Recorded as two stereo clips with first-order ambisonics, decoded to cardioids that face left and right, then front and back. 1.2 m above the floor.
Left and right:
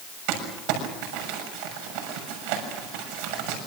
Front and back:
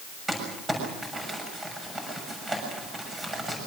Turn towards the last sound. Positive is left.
turn(degrees=-105)